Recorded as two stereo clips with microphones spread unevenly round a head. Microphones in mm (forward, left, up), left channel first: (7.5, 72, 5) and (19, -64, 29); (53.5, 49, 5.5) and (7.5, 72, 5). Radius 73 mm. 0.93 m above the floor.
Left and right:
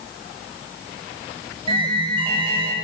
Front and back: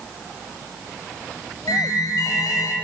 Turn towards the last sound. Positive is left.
turn(degrees=-30)